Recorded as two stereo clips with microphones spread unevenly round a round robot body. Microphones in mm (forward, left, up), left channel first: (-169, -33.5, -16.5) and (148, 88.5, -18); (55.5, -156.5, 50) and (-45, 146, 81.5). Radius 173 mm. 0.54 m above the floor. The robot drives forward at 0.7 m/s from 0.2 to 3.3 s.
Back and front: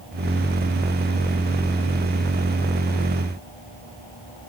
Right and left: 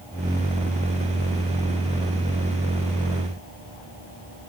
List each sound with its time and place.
Only background noise.